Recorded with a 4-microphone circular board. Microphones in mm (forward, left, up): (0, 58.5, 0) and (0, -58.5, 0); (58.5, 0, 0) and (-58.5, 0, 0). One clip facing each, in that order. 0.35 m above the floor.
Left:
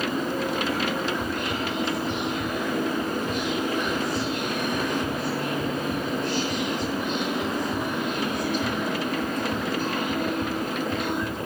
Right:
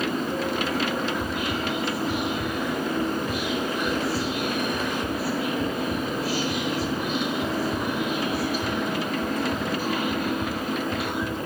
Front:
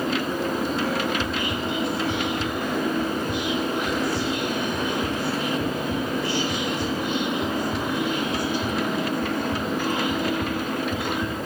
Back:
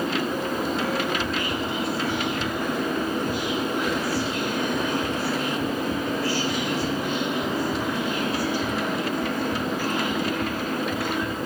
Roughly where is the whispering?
Ahead.